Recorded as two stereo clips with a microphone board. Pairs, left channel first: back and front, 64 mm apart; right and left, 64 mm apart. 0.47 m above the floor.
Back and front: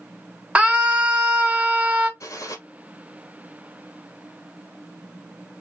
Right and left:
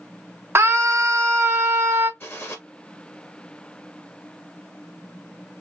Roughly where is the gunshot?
Behind right.